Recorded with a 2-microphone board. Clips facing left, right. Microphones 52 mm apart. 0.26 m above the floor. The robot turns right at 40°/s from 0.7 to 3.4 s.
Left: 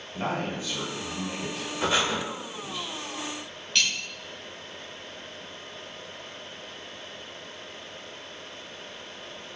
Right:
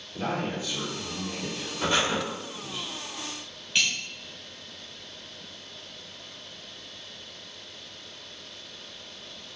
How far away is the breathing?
About 0.7 m.